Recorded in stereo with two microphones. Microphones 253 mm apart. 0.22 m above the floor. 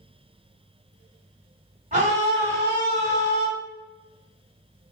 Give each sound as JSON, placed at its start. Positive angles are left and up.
{"t": 1.9, "sound": "a scream", "side_deg": -30, "distance_m": 1.8}